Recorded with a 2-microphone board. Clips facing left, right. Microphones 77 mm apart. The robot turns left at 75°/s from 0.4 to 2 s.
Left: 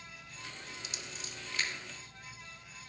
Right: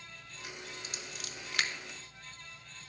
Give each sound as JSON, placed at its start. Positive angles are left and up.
{"t": 0.8, "sound": "scissors", "side_deg": -40, "distance_m": 0.7}